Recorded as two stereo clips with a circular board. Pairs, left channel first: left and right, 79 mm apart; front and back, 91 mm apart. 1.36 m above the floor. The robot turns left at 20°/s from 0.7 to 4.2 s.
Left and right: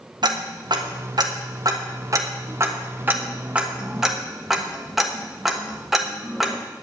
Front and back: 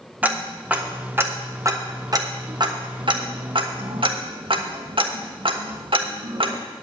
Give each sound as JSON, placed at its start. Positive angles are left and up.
{"t": 0.2, "sound": "ticking", "azimuth_deg": -105, "distance_m": 1.2}